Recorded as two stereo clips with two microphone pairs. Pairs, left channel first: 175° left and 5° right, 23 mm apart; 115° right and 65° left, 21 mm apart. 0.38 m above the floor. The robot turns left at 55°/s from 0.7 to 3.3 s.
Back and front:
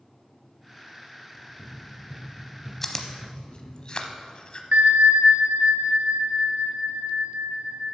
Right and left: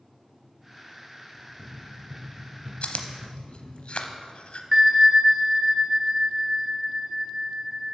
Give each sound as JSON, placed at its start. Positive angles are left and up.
{"t": 1.3, "sound": "running footsteps", "azimuth_deg": 125, "distance_m": 3.5}
{"t": 2.8, "sound": "chewing", "azimuth_deg": -110, "distance_m": 0.7}
{"t": 4.7, "sound": "a bell", "azimuth_deg": -20, "distance_m": 0.9}